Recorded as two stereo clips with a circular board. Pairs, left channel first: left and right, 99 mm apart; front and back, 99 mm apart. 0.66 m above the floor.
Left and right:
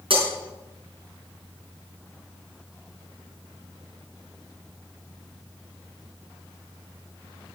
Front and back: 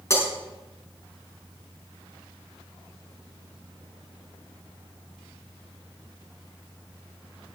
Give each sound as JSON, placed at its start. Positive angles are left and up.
{"t": 0.1, "sound": "breaking glass", "azimuth_deg": -60, "distance_m": 5.5}